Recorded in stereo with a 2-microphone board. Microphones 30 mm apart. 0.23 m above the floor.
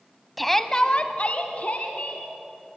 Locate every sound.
0.4 s a shout: centre (ahead or behind), 1.2 m; by 2.3 s 50° left (ahead or behind), 2.5 m